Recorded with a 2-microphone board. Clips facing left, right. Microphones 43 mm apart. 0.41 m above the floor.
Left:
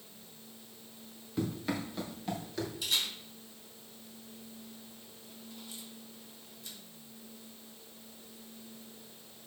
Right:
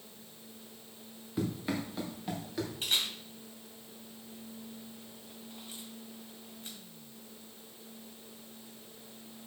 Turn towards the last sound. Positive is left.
turn(degrees=-35)  # may be behind; listen again after turning